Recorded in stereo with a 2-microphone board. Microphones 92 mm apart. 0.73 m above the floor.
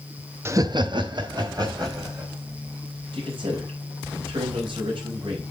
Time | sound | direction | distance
0.5 | laughter | 25° right (ahead or behind) | 0.5 m
3.1 | a man speaking | 65° right (ahead or behind) | 4 m